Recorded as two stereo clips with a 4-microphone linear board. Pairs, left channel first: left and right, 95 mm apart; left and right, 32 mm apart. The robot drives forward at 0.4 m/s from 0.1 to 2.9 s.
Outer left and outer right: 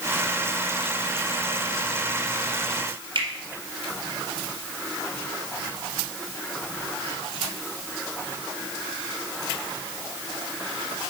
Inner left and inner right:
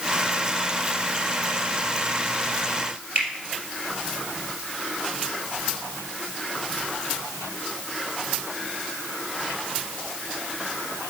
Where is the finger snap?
55° right (ahead or behind), 2.5 m.